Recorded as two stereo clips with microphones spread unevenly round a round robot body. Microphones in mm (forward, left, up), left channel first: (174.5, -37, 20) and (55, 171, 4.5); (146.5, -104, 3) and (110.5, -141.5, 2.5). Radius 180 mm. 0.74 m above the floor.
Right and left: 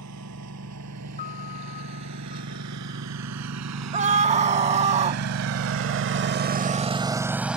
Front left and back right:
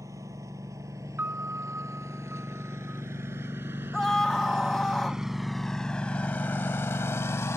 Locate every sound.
0.0 s a lawn mower: 170° left; by 7.6 s 30° left
1.2 s a piano: 120° right
3.9 s a scream: 115° left